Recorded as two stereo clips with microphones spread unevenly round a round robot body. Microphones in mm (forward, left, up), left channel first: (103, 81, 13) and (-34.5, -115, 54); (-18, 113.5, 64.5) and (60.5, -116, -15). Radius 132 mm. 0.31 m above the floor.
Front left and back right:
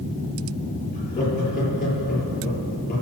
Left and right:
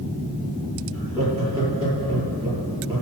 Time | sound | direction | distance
0.9 | laughter | straight ahead | 6.5 m